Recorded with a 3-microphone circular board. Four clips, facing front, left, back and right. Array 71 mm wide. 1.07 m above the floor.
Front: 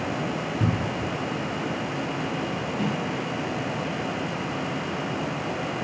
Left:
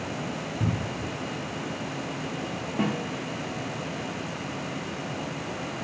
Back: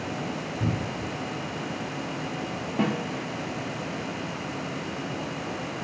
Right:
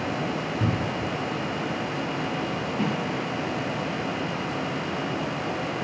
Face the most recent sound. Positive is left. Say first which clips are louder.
# left 1 dB, back 3 dB
turn(degrees=150)